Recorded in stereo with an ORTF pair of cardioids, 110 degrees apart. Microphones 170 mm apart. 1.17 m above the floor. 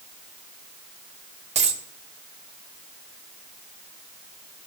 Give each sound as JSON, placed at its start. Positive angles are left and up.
{"t": 1.6, "sound": "a dropped coin", "azimuth_deg": -40, "distance_m": 1.4}